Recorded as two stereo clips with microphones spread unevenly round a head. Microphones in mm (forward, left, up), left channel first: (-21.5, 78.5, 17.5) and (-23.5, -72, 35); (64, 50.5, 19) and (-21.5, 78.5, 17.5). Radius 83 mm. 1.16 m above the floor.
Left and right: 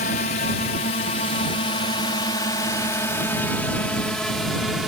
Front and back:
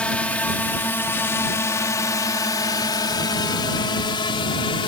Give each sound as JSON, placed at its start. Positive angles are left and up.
{"t": 0.0, "sound": "a drone", "azimuth_deg": 55}